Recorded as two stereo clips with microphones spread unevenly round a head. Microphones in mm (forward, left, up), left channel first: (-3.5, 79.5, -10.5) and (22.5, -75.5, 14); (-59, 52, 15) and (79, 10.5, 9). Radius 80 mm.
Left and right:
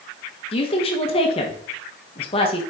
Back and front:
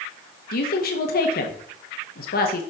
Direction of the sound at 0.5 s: 150° left.